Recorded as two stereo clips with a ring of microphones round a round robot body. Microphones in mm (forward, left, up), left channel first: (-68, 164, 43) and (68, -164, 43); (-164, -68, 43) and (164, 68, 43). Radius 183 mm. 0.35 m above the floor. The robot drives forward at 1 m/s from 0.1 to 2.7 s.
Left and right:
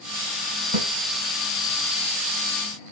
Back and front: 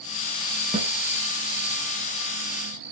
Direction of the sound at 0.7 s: 50° right.